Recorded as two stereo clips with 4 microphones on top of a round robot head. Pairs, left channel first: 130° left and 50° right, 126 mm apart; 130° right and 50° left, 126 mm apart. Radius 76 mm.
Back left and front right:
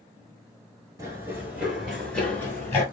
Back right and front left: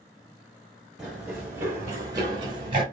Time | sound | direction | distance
1.0 | running footsteps | 40° right | 1.1 m